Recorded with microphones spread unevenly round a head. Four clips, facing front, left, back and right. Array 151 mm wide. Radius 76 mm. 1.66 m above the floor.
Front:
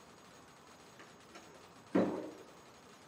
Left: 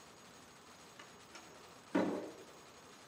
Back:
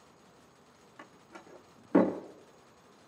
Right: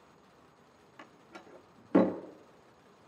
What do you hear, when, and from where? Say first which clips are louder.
1.0 s a door slam: right 8 dB, back 8 dB; 140° right, 2.0 m